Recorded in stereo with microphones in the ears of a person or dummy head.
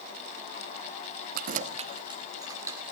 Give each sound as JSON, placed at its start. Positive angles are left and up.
{"t": 1.4, "sound": "keys jangling", "side_deg": -50, "distance_m": 0.8}